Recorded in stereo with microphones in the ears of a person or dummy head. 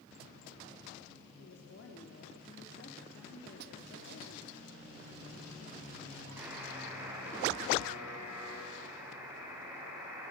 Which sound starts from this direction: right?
A snare drum, at 3.6 s.